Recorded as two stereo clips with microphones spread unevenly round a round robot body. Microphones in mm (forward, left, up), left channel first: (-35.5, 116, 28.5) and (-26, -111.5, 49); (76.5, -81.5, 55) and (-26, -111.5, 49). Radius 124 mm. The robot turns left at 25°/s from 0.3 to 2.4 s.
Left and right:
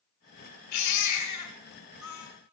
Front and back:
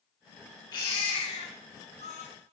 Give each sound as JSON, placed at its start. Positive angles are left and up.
{"t": 0.7, "sound": "a baby crying", "azimuth_deg": 90, "distance_m": 3.0}